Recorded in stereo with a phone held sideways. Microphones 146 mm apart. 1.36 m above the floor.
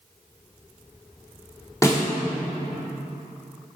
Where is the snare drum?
20° left (ahead or behind), 3 m.